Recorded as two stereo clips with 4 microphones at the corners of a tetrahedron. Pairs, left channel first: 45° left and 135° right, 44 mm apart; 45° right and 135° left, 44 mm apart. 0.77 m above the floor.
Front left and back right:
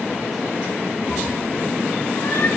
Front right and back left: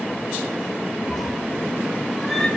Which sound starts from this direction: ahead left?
A cat meowing, at 1.1 s.